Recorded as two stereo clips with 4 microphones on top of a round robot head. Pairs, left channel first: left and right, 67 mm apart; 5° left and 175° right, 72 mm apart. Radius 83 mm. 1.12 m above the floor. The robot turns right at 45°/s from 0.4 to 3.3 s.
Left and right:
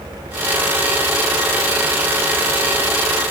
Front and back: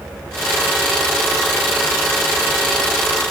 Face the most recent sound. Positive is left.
No sound to turn to.